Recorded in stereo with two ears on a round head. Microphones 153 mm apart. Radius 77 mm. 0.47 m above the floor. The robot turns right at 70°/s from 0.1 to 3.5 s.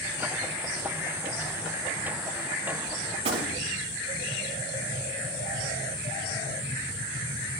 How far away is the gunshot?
About 1.8 m.